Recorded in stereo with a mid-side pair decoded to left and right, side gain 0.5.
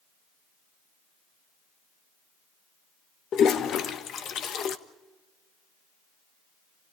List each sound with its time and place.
3.3 s a toilet flushing: 55° left, 1.4 m